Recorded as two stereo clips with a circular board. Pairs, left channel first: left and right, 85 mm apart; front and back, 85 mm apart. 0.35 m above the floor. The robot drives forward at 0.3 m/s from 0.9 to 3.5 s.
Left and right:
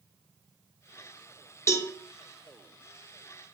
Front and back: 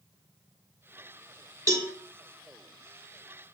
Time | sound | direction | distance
1.7 | a cowbell | 140° left | 0.5 m